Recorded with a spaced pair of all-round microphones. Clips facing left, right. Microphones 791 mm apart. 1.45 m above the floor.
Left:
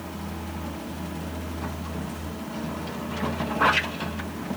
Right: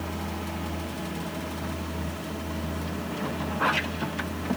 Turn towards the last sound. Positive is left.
No sound to turn to.